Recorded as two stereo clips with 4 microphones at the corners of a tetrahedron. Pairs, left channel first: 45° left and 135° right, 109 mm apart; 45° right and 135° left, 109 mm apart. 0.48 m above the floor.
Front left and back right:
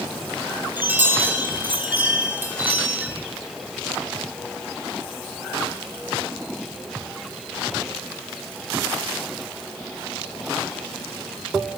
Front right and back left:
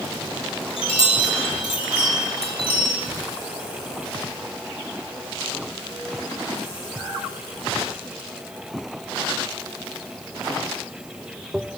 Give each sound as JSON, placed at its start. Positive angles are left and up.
{"t": 0.8, "sound": "a chime", "azimuth_deg": -65, "distance_m": 1.3}